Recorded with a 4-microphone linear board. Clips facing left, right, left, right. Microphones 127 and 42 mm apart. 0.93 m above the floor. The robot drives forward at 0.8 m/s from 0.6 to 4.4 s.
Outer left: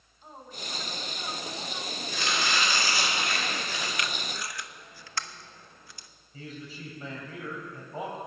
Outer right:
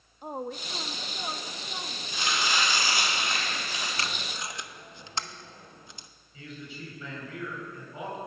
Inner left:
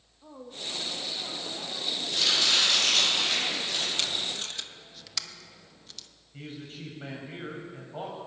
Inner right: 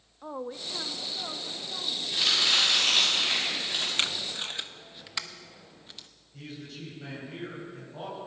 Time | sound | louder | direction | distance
0.2 | a woman speaking | outer right 9 dB, inner right 5 dB | 60° right (ahead or behind) | 0.6 m
2.1 | chopping | even, even | 15° right (ahead or behind) | 8 m
4.0 | tape being pulled | outer left 1 dB, inner right 1 dB | 30° right (ahead or behind) | 0.5 m
6.3 | a man speaking | outer left 1 dB, inner left 1 dB | 40° left (ahead or behind) | 5 m